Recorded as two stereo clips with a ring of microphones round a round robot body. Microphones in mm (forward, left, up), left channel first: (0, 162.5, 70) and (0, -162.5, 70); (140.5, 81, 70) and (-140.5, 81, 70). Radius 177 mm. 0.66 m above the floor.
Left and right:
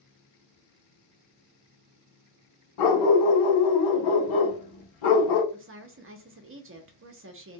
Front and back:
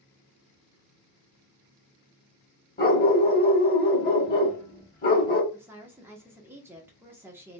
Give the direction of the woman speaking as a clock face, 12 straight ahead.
3 o'clock.